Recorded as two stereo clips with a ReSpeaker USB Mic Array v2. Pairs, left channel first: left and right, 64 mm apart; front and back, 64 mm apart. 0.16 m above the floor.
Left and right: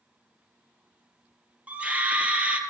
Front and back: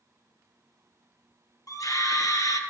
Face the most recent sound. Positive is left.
turn(degrees=-20)